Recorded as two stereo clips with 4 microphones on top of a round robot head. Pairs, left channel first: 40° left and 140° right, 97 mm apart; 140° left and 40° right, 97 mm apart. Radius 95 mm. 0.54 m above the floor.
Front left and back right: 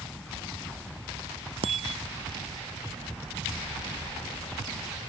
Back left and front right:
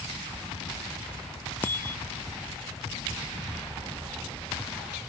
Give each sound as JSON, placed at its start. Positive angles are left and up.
{"t": 1.6, "sound": "a bicycle bell", "azimuth_deg": -150}